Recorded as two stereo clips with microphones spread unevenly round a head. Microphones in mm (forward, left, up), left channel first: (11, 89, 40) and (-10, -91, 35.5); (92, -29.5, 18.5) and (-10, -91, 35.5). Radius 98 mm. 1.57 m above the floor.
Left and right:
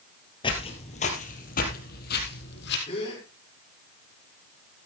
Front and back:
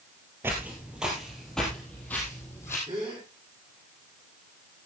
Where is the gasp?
145° left, 5.5 m.